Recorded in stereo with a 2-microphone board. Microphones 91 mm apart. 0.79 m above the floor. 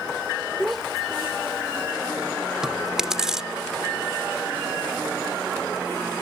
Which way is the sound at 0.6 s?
Centre (ahead or behind).